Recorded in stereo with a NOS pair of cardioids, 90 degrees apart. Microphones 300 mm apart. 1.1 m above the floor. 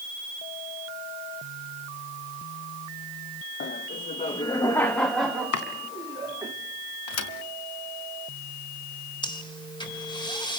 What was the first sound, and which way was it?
Laughter, 40° left.